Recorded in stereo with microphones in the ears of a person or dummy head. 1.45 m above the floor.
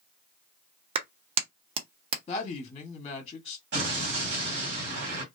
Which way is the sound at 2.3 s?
25° left (ahead or behind).